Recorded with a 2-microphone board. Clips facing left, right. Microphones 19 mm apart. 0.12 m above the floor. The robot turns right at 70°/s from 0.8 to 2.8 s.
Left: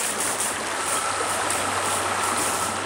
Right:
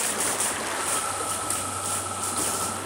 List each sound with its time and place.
0.0 s running water: 10° left; by 2.9 s 150° left